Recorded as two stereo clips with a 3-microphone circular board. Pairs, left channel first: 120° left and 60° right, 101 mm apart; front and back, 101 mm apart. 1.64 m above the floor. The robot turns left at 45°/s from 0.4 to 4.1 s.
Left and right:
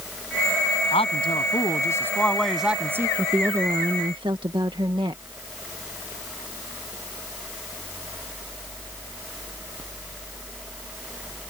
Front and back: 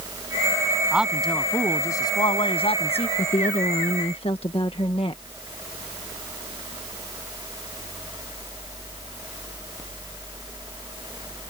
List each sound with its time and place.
0.9 s a man speaking: 100° left; by 3.1 s 5° left
3.2 s a woman speaking: 20° left; by 5.2 s 20° right